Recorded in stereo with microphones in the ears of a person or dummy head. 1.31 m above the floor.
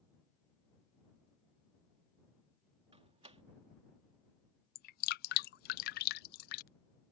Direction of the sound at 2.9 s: 30° right (ahead or behind).